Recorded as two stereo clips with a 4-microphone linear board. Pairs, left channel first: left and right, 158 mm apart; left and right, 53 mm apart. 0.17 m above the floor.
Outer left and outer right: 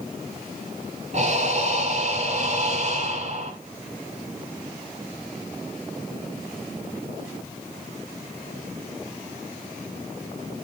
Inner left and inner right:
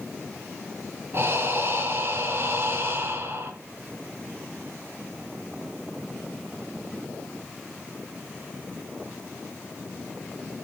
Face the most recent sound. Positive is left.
turn(degrees=-45)  # may be behind; listen again after turning